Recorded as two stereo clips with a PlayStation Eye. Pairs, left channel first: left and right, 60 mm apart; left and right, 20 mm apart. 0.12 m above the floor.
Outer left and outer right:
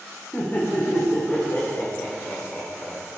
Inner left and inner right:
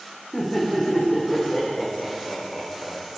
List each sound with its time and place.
0.3 s laughter: 35° left (ahead or behind), 6 m; by 3.0 s 20° left (ahead or behind), 7.5 m